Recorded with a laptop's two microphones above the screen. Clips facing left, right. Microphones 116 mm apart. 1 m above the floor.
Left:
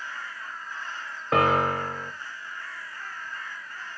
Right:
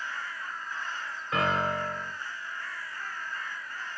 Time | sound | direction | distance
1.3 | a piano | 60° left (ahead or behind) | 0.9 m